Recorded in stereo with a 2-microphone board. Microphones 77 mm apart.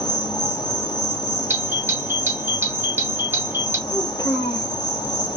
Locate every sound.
0.0 s an insect: 90° left, 1.1 m
1.5 s a doorbell: 25° right (ahead or behind), 1.9 m
3.9 s a child speaking: 60° left (ahead or behind), 1.6 m